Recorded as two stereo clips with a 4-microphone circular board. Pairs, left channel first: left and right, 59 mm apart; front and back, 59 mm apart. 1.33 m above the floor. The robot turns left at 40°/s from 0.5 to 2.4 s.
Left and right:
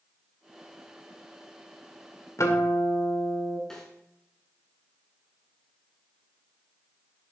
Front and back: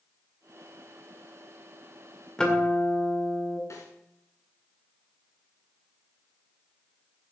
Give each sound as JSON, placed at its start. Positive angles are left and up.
{"t": 2.4, "sound": "a guitar", "azimuth_deg": 75, "distance_m": 2.0}
{"t": 3.7, "sound": "a snare drum", "azimuth_deg": 10, "distance_m": 3.0}